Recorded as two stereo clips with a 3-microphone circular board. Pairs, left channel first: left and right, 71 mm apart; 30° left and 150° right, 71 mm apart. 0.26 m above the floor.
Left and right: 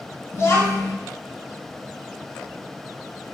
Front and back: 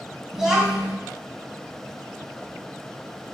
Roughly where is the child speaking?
Behind left.